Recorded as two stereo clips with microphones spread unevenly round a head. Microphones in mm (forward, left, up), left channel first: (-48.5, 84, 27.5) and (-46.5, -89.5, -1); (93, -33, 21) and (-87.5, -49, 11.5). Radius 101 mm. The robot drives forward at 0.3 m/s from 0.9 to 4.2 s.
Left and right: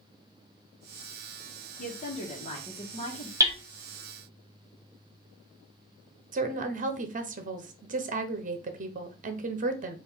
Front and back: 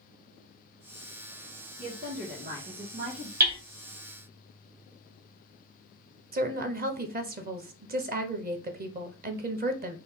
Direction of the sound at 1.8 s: 130° left.